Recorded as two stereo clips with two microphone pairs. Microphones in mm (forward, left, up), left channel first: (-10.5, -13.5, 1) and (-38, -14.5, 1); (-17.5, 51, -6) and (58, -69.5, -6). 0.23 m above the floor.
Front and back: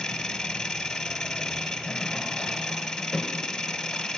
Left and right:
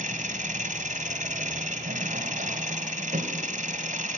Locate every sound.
0.0 s an engine running: 70° right, 1.8 m